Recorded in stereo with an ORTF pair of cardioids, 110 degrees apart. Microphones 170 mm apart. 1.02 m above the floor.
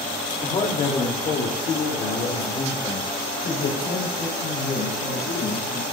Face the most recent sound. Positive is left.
turn(degrees=65)